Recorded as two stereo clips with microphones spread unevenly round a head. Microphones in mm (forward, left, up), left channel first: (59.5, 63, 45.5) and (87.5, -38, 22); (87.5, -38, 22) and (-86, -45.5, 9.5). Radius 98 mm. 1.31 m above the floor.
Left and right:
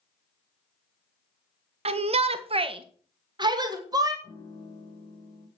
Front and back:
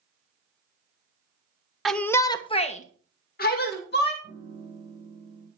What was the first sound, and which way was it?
A shout, 90° right.